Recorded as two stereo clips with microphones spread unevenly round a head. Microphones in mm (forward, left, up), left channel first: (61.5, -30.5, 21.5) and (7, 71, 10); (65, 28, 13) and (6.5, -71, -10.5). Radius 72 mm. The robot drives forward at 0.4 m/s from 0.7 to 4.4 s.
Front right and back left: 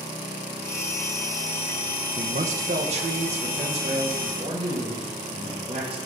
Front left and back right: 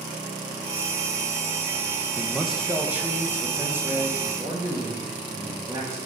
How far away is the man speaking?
About 0.6 m.